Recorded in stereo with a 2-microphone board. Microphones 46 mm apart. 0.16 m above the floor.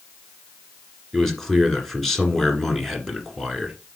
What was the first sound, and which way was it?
A man speaking, 5° left (ahead or behind).